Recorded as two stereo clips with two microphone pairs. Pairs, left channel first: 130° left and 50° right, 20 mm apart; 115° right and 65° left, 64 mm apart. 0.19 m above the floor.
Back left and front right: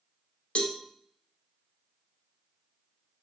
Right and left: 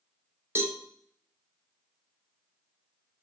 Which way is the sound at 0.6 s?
115° left.